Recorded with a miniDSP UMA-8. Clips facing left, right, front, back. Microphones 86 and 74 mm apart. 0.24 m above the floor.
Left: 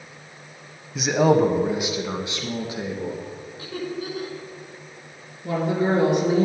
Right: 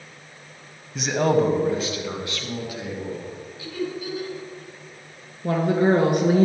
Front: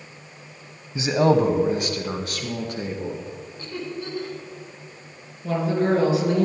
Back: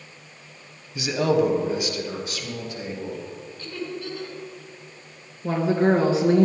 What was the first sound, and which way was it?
A man speaking, 5° left.